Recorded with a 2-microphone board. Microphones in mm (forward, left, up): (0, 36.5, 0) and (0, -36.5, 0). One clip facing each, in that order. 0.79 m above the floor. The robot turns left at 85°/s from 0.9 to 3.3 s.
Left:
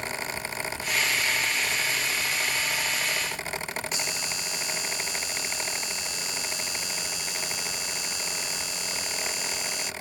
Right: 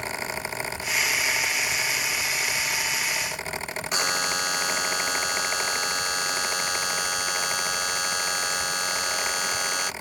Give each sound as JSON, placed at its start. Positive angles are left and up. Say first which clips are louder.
{"t": 3.9, "sound": "a buzzer", "louder": "right 7 dB", "side_deg": -65}